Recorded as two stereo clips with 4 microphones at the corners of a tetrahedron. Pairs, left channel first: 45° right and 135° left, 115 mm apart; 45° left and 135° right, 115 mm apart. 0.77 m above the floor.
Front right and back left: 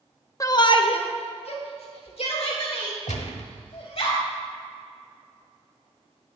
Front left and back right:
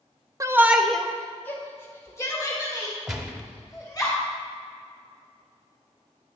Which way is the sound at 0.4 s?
85° right.